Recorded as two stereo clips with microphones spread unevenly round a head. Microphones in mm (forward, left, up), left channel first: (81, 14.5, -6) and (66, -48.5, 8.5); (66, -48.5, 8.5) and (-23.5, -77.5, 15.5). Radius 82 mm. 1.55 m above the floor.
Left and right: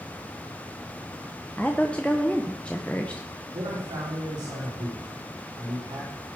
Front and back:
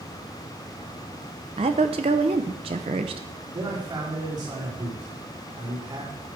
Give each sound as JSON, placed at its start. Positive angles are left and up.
{"t": 1.6, "sound": "a woman speaking", "azimuth_deg": 160, "distance_m": 0.7}
{"t": 3.5, "sound": "a man speaking", "azimuth_deg": -125, "distance_m": 5.0}